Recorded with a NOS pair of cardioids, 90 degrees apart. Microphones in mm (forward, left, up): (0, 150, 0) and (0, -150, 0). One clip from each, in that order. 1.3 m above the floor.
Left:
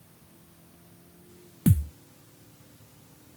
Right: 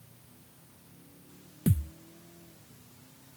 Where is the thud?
35° left.